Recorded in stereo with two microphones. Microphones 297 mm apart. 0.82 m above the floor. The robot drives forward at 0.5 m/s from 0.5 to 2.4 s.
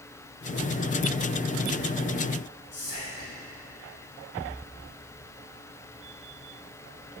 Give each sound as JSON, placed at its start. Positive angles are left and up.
{"t": 2.7, "sound": "whispering", "side_deg": 80, "distance_m": 2.5}